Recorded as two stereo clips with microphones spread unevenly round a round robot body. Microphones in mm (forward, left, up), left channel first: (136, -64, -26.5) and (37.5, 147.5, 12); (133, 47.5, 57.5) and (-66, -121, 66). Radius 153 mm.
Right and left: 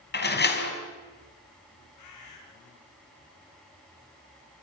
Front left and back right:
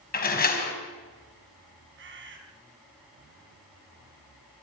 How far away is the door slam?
About 4 m.